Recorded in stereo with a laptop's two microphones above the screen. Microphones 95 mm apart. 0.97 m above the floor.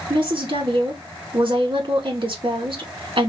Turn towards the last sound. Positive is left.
turn(degrees=-60)  # may be behind; listen again after turning